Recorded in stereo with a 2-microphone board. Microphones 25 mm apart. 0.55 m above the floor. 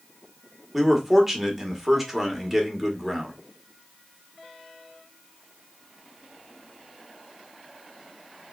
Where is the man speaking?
5° right (ahead or behind), 1.2 m.